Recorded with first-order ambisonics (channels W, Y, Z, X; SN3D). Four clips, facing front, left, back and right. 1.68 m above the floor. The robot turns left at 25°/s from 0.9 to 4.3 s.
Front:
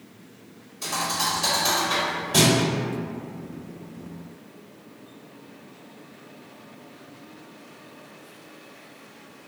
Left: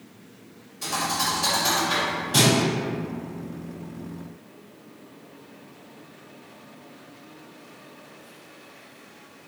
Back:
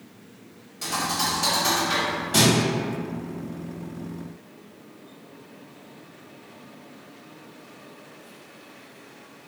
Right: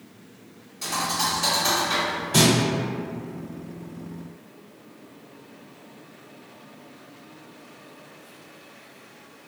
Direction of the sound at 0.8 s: 165° right.